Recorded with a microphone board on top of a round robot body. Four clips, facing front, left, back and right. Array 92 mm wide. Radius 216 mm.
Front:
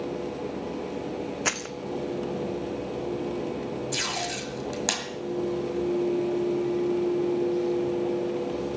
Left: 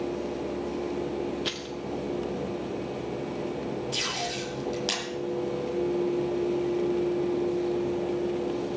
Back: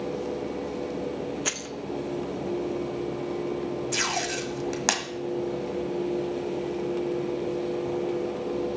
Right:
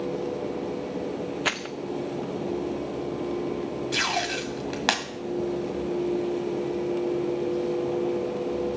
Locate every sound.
1.4 s keys jangling: 55° right, 0.6 m
3.9 s tape being pulled: 115° right, 1.6 m